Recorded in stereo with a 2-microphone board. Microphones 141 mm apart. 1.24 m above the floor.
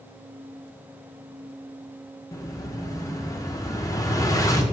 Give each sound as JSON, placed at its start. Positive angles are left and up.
{"t": 2.3, "sound": "an explosion", "side_deg": 25, "distance_m": 1.0}